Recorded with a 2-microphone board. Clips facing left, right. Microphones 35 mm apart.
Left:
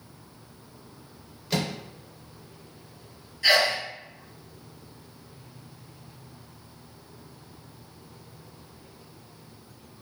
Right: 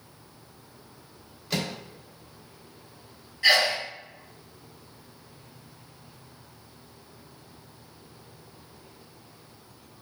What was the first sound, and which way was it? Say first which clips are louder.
A microwave: left 2 dB; 5° left (ahead or behind).